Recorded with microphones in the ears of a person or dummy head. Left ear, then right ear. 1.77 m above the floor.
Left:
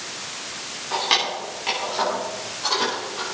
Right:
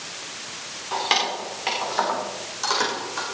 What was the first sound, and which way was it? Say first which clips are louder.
Keys jangling: left 1 dB; 10° right (ahead or behind).